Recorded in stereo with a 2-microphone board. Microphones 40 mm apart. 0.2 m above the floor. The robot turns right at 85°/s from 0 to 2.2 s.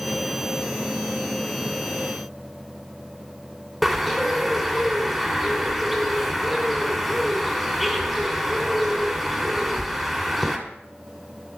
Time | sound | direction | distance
3.8 | a bird | centre (ahead or behind) | 2 m